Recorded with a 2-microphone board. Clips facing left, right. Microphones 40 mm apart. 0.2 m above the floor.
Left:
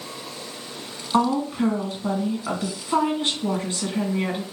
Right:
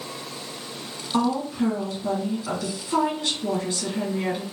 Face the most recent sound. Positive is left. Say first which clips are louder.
# left 2 dB
turn(degrees=30)  # may be behind; listen again after turning